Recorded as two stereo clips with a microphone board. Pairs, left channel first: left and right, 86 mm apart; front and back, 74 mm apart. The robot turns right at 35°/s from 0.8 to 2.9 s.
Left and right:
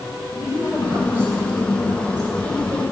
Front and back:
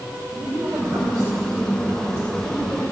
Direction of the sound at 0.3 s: 170° right.